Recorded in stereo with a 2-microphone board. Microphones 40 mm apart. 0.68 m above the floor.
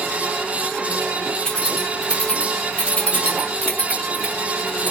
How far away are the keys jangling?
About 2 m.